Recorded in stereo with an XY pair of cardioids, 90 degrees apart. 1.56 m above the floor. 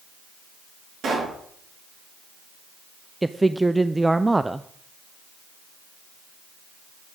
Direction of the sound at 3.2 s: 15° right.